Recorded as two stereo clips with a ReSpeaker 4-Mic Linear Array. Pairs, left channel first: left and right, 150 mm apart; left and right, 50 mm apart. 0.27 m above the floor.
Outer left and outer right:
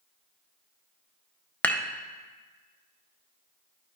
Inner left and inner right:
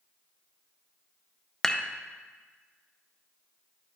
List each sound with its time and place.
1.6 s dishes clattering: 10° left (ahead or behind), 0.6 m